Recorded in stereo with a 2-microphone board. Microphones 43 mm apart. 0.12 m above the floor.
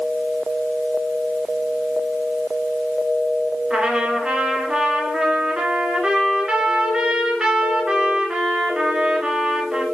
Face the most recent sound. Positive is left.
turn(degrees=-15)  # may be behind; listen again after turning